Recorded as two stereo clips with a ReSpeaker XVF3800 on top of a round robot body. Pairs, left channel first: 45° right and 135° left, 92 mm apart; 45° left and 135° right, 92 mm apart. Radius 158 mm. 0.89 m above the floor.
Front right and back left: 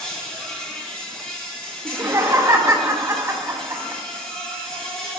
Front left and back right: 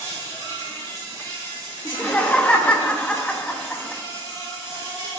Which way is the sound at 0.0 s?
130° right.